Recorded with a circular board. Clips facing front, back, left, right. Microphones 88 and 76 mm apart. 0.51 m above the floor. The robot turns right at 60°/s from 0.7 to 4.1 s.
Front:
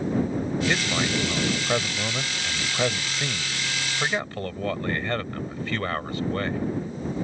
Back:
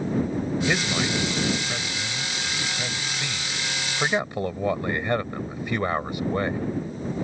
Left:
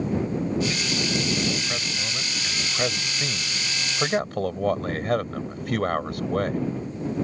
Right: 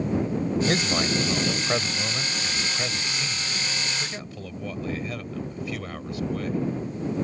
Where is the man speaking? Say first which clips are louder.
Even, right 3 dB; 95° right; by 6.6 s 110° left.